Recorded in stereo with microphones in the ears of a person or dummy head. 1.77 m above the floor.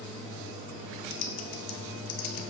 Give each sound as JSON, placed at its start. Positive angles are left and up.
{"t": 1.1, "sound": "typing on a keyboard", "side_deg": 45, "distance_m": 0.7}